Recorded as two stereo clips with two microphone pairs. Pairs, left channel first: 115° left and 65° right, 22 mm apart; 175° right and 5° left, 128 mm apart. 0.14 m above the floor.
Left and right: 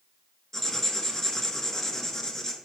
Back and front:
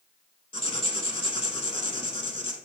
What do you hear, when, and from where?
0.5 s writing: 175° left, 0.6 m